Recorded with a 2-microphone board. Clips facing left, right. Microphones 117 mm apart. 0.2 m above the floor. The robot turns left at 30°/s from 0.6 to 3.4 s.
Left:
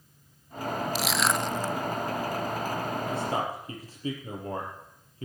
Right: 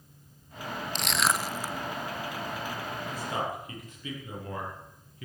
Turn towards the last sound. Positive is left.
turn(degrees=35)  # may be behind; listen again after turning